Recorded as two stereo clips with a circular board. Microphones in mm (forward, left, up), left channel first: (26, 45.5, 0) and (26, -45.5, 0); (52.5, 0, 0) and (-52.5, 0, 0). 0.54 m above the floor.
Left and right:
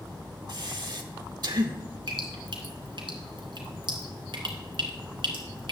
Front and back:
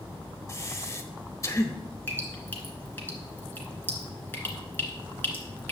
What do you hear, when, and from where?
0.5 s breathing: 60° right, 0.9 m
2.1 s dripping: 70° right, 2 m